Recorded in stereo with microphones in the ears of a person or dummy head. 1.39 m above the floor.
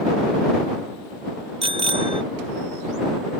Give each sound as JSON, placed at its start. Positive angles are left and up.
{"t": 1.6, "sound": "a bicycle bell", "side_deg": -30}